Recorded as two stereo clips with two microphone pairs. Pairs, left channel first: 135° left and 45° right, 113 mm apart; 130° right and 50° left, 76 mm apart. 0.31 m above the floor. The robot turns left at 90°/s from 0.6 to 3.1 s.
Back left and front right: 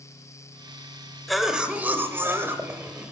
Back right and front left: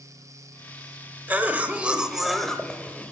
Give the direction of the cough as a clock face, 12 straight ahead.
10 o'clock.